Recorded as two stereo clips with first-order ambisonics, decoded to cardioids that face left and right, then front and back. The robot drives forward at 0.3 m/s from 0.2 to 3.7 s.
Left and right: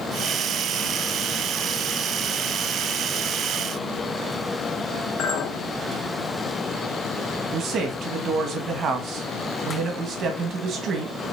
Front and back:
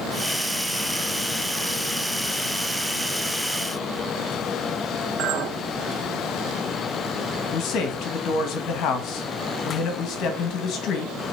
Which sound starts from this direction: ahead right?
A man speaking, at 7.5 s.